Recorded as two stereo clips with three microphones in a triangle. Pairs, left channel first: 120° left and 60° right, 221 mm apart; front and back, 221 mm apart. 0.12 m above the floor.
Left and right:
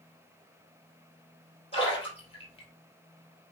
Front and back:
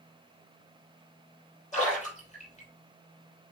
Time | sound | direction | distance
1.7 | a splash | 55° left | 3.5 m